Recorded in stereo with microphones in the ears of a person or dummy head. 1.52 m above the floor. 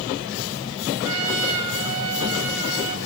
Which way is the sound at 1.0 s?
80° right.